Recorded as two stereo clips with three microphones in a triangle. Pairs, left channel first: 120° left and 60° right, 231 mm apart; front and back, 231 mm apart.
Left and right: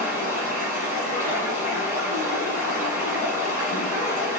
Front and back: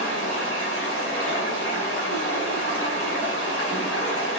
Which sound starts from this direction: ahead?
Running water, at 0.0 s.